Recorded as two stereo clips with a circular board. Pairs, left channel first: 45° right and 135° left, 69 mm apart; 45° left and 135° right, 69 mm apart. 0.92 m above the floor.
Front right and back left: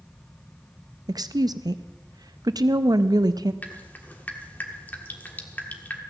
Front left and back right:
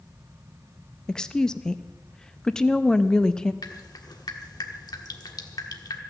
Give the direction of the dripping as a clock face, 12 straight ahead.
11 o'clock.